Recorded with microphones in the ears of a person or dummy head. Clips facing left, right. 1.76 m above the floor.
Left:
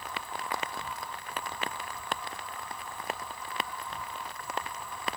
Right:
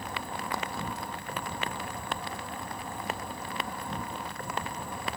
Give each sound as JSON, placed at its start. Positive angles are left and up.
{"t": 0.0, "sound": "an insect", "side_deg": -40}